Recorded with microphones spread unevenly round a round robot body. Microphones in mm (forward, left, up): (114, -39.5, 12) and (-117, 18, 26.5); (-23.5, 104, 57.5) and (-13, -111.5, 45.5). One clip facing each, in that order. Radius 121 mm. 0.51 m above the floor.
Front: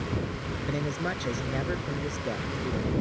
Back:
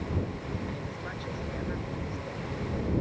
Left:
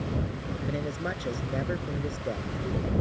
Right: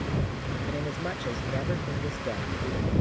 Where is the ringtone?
No ringtone in this recording.